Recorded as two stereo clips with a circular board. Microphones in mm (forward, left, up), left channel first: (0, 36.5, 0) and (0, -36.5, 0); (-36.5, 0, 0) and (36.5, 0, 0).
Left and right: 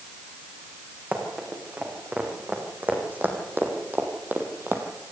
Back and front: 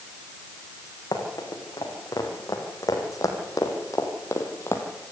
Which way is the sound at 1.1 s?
155° right.